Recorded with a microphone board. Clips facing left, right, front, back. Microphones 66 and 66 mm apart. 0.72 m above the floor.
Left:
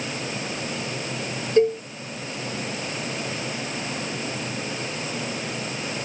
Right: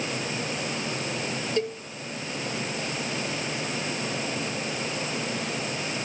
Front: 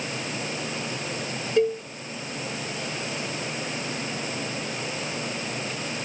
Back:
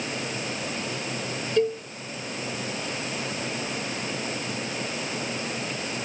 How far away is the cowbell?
About 0.6 m.